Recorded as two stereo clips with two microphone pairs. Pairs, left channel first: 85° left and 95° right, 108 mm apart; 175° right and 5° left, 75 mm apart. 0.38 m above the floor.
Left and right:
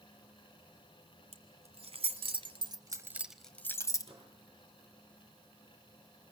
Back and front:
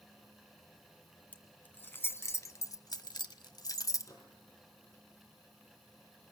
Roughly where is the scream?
No scream in this recording.